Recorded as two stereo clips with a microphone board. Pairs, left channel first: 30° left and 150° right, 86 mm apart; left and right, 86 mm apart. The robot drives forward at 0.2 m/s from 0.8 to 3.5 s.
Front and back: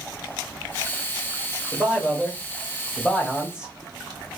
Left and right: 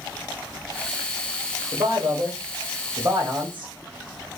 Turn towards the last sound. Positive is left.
turn(degrees=-80)